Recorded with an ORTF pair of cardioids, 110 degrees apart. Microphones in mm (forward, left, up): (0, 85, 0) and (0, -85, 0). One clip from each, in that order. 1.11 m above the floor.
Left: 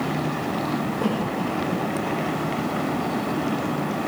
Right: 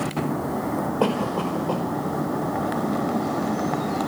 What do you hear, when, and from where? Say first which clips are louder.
1.0 s a cough: right 2 dB; 55° right, 5 m